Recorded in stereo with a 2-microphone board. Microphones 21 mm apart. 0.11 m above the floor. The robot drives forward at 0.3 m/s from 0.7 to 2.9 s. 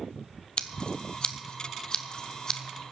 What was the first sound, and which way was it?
Scissors, 55° left (ahead or behind).